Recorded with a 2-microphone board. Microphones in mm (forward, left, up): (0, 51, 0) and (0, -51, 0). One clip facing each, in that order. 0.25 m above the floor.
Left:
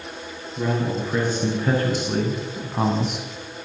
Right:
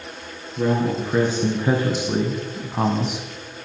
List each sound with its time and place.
0.6 s a man speaking: 15° right (ahead or behind), 3.5 m; by 3.2 s centre (ahead or behind), 1.2 m